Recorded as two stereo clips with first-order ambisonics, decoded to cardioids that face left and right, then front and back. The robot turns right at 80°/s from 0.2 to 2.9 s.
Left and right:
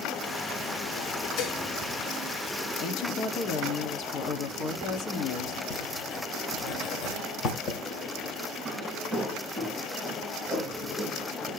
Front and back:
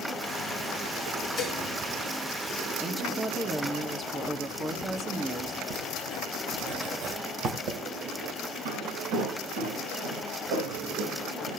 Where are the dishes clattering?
55° left, 1.9 m; by 1.6 s 75° left, 1.9 m.